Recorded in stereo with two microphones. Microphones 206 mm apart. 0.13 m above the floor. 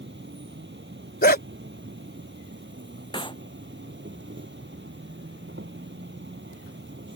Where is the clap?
25° left (ahead or behind).